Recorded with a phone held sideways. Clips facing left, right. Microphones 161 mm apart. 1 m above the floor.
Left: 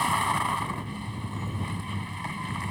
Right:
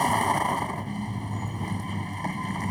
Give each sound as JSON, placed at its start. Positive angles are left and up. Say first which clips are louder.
{"t": 0.0, "sound": "a vehicle", "louder": "right 4 dB", "side_deg": -45}